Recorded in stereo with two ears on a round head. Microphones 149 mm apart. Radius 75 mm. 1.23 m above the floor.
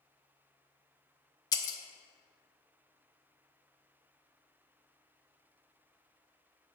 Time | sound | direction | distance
1.5 | breaking glass | 25° left (ahead or behind) | 0.8 m